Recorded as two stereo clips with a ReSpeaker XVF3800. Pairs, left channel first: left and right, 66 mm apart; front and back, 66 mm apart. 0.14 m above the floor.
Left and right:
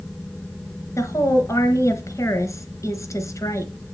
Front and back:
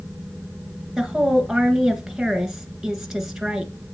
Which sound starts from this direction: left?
A woman speaking, at 1.0 s.